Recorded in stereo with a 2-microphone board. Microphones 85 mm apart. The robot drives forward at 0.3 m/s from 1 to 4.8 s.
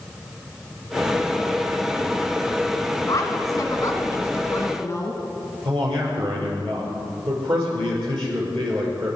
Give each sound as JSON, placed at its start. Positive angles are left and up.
{"t": 3.1, "sound": "a woman speaking", "side_deg": 40, "distance_m": 2.0}
{"t": 5.7, "sound": "a man speaking", "side_deg": -65, "distance_m": 7.0}